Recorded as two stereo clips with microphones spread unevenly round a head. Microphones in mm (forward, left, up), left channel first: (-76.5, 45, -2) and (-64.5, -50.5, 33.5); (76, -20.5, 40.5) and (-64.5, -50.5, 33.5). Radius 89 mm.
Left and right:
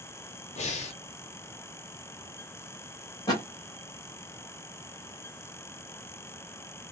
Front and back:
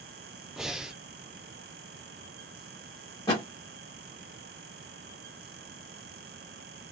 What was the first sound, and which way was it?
Breathing, 105° left.